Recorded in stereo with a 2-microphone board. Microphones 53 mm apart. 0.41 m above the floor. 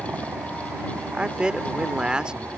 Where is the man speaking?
20° right (ahead or behind).